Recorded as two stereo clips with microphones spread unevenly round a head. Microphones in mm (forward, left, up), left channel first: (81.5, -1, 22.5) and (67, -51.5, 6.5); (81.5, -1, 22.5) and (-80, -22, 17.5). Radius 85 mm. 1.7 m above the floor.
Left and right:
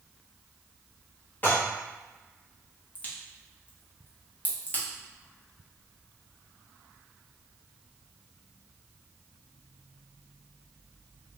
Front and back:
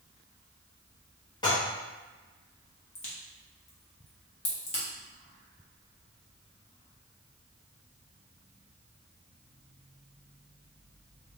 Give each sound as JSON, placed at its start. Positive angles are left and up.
{"t": 1.4, "sound": "dishes clattering", "azimuth_deg": 65, "distance_m": 1.3}
{"t": 3.0, "sound": "a crack", "azimuth_deg": 45, "distance_m": 1.1}